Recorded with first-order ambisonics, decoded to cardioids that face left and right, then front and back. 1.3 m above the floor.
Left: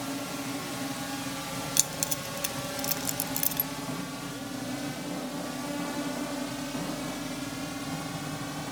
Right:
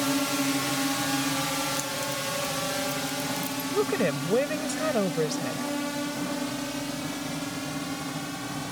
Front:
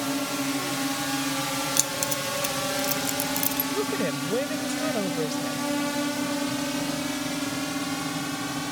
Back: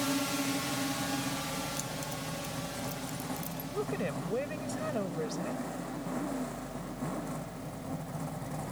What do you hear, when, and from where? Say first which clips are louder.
0.0 s a drone: right 8 dB, front 4 dB; 75° right; by 8.7 s 10° right
1.8 s keys jangling: right 1 dB, front 11 dB; 40° left
3.7 s a woman speaking: right 11 dB, front 4 dB; 70° right